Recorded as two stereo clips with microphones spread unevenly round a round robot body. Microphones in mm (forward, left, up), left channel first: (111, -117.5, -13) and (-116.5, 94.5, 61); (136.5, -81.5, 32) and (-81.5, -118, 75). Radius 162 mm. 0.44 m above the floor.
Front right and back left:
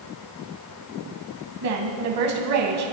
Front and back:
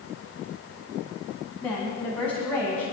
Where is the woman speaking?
90° left, 3 m.